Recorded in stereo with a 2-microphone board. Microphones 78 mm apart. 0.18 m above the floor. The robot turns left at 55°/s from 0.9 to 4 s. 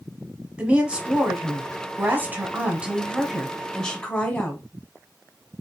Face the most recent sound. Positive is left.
turn(degrees=10)  # may be behind; listen again after turning